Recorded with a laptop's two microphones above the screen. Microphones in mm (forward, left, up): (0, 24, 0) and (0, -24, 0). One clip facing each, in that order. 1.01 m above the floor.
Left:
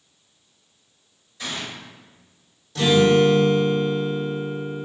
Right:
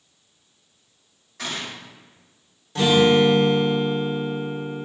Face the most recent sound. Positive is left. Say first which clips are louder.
# even
turn(degrees=-35)  # may be behind; listen again after turning